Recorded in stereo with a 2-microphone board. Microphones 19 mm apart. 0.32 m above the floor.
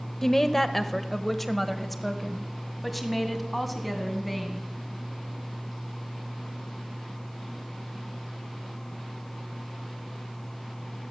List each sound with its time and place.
0.2 s a woman speaking: 20° left (ahead or behind), 0.9 m; by 4.7 s 5° right (ahead or behind), 2.5 m